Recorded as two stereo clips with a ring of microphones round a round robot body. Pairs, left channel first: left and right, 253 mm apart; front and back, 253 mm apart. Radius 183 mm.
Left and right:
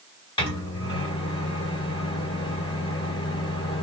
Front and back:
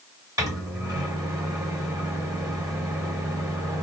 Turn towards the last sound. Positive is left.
turn(degrees=125)